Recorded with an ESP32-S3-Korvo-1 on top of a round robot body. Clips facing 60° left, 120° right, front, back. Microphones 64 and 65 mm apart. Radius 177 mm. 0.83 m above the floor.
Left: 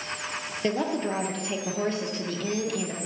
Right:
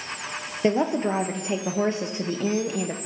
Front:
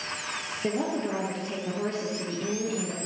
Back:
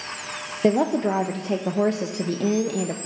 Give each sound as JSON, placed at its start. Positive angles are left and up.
{"t": 0.6, "sound": "a woman speaking", "azimuth_deg": 175, "distance_m": 0.8}